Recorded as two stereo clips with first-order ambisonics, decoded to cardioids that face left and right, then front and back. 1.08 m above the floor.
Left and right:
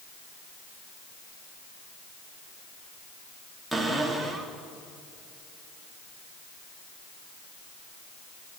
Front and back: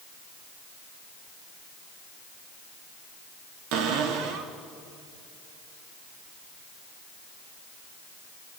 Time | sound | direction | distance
3.7 | a cupboard door | straight behind | 3 m